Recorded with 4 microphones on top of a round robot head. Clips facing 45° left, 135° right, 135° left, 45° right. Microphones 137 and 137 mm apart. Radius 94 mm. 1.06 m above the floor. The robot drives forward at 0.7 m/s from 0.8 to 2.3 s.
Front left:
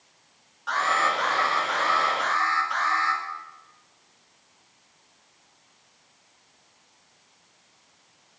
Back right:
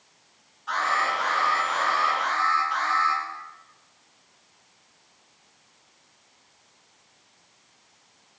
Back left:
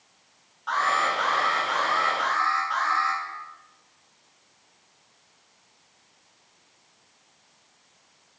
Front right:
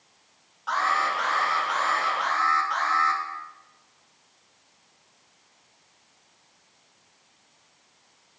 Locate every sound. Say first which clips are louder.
0.7 s an alarm: front left 1 dB, back left 1 dB; 40° left, 6 m; by 3.2 s 45° left, 5 m